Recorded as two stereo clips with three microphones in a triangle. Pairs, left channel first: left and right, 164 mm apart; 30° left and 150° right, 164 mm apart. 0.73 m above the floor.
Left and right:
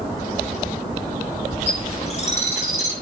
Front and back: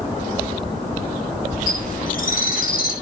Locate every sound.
1.7 s a bird: 50° left, 4.5 m